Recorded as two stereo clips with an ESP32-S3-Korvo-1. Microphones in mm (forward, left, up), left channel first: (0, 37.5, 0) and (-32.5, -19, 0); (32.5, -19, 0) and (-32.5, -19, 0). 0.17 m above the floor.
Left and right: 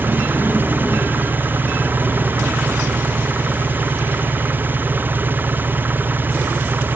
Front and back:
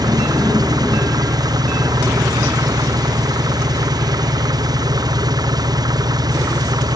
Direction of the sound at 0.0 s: Straight behind.